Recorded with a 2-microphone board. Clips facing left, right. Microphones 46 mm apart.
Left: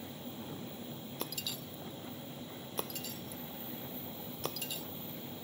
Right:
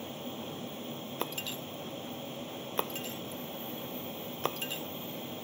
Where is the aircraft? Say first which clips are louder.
Right 5 dB; 60° right (ahead or behind).